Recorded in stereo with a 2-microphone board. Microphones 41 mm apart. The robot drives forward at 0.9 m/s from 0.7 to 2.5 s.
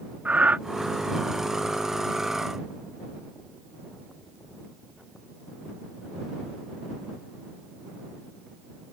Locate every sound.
0.2 s breathing: 35° right (ahead or behind)